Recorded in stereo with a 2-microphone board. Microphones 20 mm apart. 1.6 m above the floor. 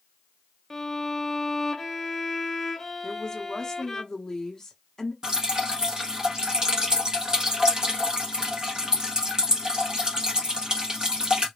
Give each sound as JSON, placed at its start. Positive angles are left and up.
{"t": 0.7, "sound": "a violin", "side_deg": 15, "distance_m": 0.8}
{"t": 3.0, "sound": "a woman speaking", "side_deg": 30, "distance_m": 1.0}
{"t": 5.2, "sound": "dripping", "side_deg": -40, "distance_m": 1.0}